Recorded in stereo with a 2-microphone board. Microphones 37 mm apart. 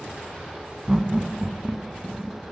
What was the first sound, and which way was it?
Laughter, 20° right (ahead or behind).